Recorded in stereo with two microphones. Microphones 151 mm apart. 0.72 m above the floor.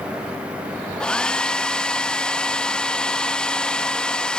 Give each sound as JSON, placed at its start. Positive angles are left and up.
{"t": 1.0, "sound": "a hair dryer", "side_deg": 5, "distance_m": 0.5}